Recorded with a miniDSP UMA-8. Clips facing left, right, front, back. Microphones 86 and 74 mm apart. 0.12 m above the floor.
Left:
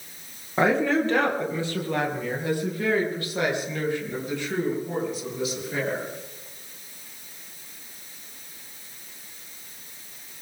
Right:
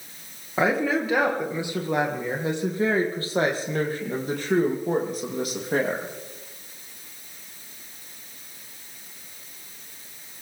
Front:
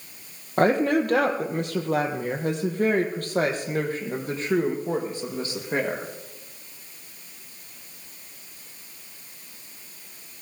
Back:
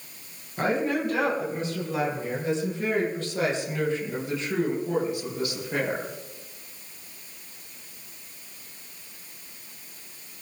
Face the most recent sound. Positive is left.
turn(degrees=-60)